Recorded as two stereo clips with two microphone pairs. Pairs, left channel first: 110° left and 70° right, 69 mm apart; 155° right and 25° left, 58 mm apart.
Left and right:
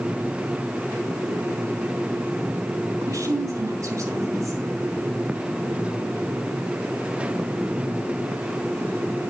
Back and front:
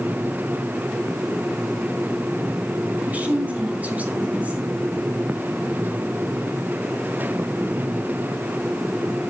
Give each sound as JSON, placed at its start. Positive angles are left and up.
{"t": 3.0, "sound": "a woman speaking", "azimuth_deg": -35, "distance_m": 4.0}